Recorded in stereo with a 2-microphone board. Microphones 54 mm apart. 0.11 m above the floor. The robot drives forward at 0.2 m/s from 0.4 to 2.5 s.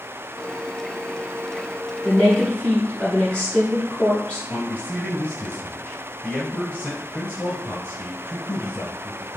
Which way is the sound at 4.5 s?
20° left (ahead or behind).